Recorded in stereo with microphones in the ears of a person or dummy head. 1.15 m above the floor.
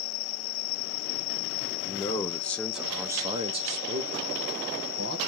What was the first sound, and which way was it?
A man speaking, 15° left (ahead or behind).